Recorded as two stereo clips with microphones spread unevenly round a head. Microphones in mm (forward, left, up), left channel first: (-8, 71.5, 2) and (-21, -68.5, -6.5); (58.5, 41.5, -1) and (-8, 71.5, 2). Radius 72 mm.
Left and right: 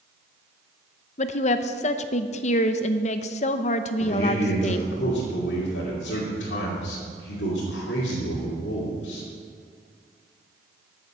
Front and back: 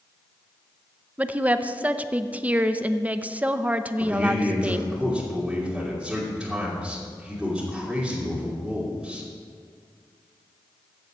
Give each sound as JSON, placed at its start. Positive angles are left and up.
{"t": 1.2, "sound": "a woman speaking", "azimuth_deg": 90, "distance_m": 0.7}
{"t": 4.0, "sound": "a man speaking", "azimuth_deg": 75, "distance_m": 3.0}